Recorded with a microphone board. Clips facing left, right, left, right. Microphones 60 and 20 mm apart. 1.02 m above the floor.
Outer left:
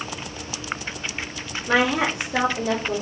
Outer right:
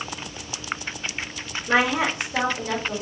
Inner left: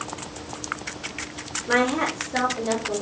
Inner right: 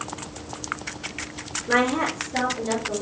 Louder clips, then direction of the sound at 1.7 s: Outer left 1 dB, even; 75° left (ahead or behind).